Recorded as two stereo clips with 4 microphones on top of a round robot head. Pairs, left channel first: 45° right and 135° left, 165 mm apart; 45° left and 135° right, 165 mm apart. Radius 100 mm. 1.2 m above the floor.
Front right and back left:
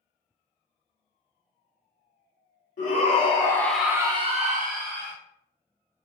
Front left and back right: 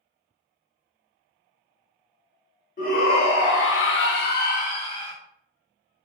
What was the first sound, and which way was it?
A shout, straight ahead.